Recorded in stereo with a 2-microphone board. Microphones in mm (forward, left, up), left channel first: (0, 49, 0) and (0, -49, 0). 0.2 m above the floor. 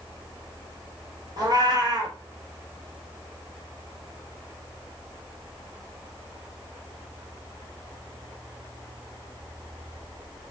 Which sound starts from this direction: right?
A cat meowing, at 1.4 s.